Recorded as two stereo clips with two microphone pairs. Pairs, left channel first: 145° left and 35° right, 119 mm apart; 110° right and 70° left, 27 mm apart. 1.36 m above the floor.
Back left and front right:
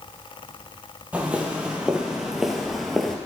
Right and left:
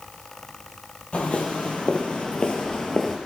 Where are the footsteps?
110° right, 2.0 m; by 3.2 s 130° right, 1.4 m.